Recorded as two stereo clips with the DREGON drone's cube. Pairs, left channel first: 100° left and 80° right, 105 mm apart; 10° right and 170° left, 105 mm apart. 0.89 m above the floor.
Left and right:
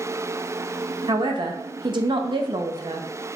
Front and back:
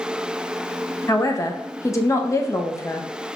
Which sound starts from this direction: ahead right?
A man speaking, at 1.1 s.